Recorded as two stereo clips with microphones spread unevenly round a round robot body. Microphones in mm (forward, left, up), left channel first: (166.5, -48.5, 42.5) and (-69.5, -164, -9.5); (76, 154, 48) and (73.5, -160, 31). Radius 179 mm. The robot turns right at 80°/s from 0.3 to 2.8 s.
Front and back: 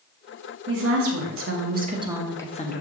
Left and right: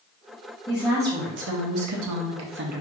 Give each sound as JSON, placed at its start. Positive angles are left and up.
{"t": 0.7, "sound": "a woman speaking", "azimuth_deg": 165, "distance_m": 1.0}